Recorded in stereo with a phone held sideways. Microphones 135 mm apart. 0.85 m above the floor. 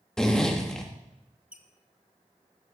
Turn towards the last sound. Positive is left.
turn(degrees=-10)  # may be behind; listen again after turning